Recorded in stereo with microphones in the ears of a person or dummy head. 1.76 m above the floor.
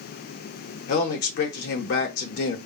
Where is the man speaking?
55° left (ahead or behind), 0.7 m.